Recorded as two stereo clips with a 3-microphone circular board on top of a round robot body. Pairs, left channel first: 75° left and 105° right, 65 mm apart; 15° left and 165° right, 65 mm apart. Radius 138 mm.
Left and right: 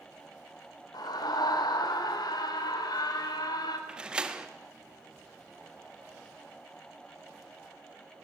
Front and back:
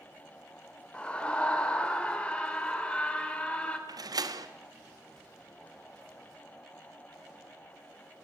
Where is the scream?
90° left, 3.5 m.